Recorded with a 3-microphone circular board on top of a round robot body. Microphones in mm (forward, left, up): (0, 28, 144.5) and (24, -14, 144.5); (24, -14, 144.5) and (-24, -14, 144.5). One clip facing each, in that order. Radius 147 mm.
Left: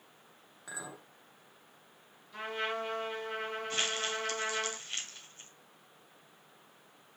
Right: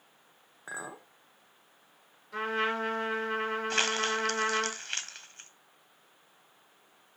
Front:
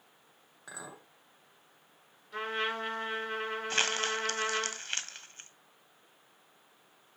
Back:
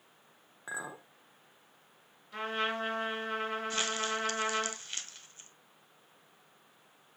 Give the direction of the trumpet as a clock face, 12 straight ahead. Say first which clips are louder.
Right 5 dB, even; 3 o'clock.